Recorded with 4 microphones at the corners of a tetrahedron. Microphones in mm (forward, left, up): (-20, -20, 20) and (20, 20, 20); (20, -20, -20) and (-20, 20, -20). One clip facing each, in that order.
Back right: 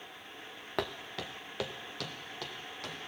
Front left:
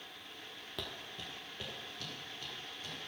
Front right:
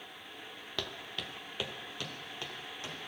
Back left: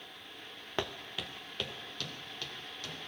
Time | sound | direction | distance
0.8 | footsteps | 165° right | 0.7 m